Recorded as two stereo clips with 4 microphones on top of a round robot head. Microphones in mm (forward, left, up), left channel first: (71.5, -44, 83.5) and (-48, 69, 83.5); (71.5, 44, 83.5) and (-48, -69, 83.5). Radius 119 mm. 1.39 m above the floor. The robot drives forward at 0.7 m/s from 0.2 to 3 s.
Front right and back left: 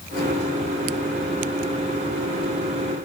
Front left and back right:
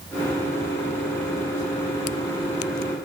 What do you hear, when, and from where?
Only background noise.